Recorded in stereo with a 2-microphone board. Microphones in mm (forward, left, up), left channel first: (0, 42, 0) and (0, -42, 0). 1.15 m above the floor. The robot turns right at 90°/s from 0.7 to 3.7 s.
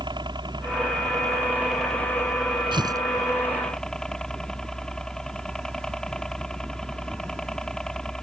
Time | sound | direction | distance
0.0 | a helicopter | 100° right | ?
2.7 | tearing paper | 70° right (ahead or behind) | ?